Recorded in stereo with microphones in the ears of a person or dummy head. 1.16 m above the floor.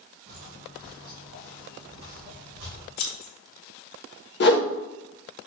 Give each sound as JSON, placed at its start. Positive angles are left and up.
{"t": 0.3, "sound": "footsteps", "side_deg": -40, "distance_m": 1.6}
{"t": 3.0, "sound": "scissors", "side_deg": 60, "distance_m": 1.6}
{"t": 4.4, "sound": "a whoosh", "side_deg": 45, "distance_m": 0.7}